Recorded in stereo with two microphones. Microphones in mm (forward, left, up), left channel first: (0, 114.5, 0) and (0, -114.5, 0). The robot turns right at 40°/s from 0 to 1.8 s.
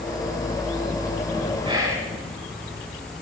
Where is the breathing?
No breathing in this recording.